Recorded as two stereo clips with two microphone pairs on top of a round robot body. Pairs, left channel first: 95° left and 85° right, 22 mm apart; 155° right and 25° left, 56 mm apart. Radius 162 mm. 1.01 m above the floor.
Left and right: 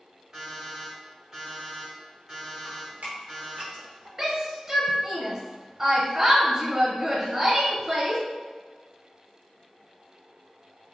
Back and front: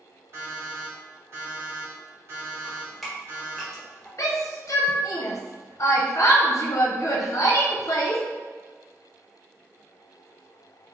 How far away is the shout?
About 0.7 m.